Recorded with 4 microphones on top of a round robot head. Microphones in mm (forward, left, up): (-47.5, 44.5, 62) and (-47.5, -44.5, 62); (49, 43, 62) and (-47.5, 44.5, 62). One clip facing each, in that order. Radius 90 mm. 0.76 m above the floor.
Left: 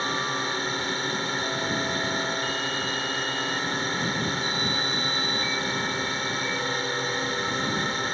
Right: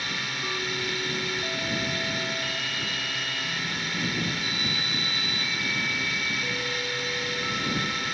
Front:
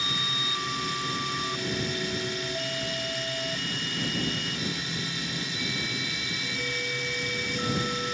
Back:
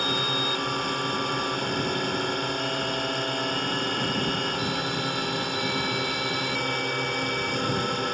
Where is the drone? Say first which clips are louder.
Left 6 dB, back 6 dB; 145° left.